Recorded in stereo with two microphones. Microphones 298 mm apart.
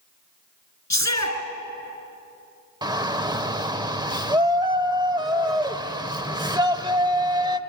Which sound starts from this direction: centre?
A shout, at 2.8 s.